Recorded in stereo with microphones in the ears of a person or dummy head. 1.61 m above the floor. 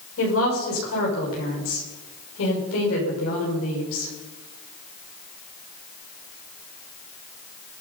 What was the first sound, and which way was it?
A woman speaking, 75° left (ahead or behind).